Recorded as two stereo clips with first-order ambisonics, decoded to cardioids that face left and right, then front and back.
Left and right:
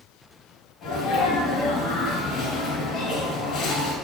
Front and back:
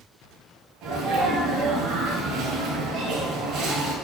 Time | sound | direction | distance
0.8 | a sneeze | 125° left | 3 m